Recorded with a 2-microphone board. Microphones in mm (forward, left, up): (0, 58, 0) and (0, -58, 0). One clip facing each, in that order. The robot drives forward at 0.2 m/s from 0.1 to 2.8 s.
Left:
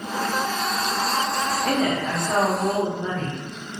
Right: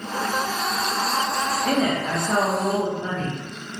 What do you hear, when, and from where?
1.6 s a woman speaking: centre (ahead or behind), 0.5 m